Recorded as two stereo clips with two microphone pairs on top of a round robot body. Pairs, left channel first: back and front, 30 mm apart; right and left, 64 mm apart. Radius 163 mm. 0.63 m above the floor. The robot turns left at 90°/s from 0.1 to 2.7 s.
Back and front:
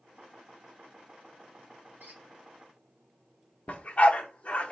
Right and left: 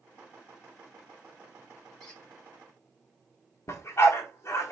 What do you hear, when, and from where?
2.0 s a squeak: 5° right, 3 m; by 2.2 s 25° right, 3 m
3.7 s a dog barking: 135° right, 0.7 m